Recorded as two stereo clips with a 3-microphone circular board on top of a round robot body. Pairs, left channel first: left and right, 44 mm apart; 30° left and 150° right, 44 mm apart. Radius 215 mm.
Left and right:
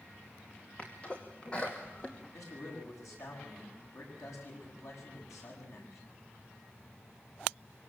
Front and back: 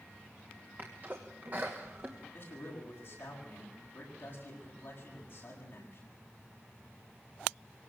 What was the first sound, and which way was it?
A sneeze, 155° left.